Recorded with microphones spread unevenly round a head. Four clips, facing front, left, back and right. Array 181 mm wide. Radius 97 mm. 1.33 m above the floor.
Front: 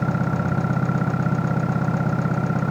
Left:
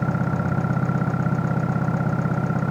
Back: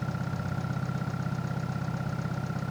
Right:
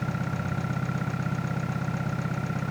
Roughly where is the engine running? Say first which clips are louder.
Left 7 dB, front 11 dB; ahead left.